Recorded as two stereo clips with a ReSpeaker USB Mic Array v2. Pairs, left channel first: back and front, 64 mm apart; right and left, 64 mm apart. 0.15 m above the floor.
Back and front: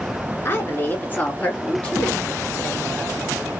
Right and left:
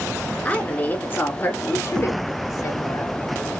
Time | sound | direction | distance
0.5 | a woman speaking | 145° right | 1.6 m